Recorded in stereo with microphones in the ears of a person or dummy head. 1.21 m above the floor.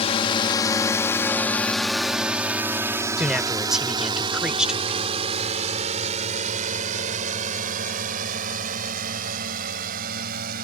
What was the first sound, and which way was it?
A drone, 35° left (ahead or behind).